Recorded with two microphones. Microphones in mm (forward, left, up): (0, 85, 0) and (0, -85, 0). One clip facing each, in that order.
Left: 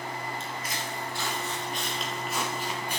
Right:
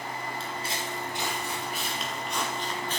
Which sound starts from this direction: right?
Footsteps, at 0.4 s.